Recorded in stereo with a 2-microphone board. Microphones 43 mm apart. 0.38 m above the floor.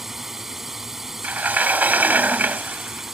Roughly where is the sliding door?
Right.